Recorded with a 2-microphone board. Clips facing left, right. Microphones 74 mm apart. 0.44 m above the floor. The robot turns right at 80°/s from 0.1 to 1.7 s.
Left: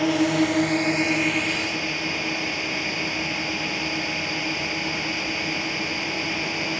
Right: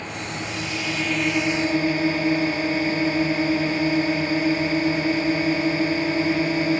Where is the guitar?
No guitar in this recording.